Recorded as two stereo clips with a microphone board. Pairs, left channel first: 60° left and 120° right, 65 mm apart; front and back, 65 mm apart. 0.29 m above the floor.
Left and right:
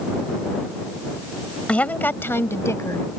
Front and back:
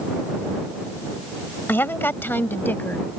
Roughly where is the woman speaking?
Ahead.